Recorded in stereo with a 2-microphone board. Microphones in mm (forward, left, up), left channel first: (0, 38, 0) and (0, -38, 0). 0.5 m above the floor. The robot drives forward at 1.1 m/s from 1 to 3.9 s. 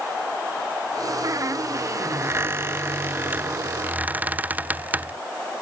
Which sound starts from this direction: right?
A squeak, at 1.2 s.